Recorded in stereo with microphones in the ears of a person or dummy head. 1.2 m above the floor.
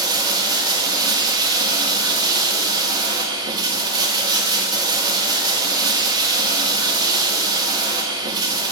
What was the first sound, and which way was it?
Running water, 25° right (ahead or behind).